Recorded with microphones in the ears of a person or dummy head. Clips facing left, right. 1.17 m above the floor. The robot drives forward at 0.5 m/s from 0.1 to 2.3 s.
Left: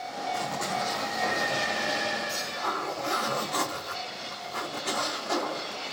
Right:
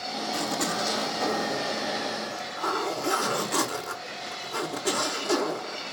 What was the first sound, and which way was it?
A zipper, 75° right (ahead or behind).